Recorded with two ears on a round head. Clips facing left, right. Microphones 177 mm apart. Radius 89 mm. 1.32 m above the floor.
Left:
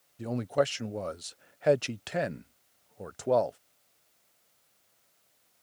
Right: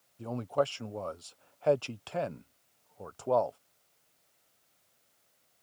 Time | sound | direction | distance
0.2 | a man speaking | 20° left (ahead or behind) | ?